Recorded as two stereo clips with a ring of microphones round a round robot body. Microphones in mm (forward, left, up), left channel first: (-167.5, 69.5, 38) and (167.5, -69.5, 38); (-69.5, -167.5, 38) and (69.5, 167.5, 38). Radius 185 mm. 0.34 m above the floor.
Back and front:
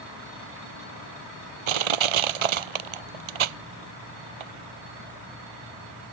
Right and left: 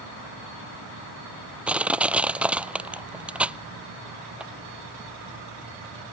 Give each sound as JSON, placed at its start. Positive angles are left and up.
{"t": 1.7, "sound": "crushing", "azimuth_deg": -20}